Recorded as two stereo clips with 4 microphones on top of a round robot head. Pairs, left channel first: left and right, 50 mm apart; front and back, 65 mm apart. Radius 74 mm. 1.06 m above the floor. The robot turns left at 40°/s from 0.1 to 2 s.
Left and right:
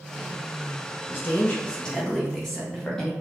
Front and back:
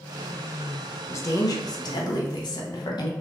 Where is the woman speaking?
45° left, 1.0 m; by 3.1 s 10° left, 1.0 m.